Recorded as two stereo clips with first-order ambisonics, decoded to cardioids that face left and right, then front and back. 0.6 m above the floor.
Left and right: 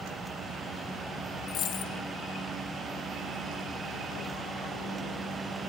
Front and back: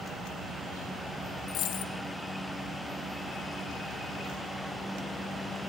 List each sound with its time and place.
1.5 s a dropped coin: 40° left, 0.6 m